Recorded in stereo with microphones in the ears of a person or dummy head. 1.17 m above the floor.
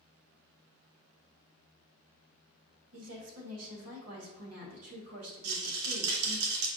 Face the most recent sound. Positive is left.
turn(degrees=-85)